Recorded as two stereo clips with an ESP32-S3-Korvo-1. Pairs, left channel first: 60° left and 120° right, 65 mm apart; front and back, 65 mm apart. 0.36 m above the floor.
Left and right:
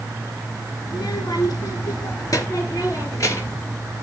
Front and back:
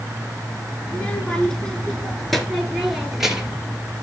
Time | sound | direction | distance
0.9 | a child speaking | 75° left | 3 m